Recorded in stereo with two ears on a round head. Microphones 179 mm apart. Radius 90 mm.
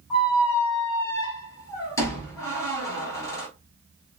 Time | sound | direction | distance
0.1 | a squeak | 15° left (ahead or behind) | 1.5 m